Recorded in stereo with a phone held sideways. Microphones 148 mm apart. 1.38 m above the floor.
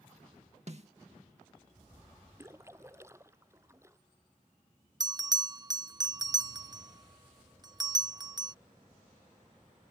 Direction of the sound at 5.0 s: 25° right (ahead or behind).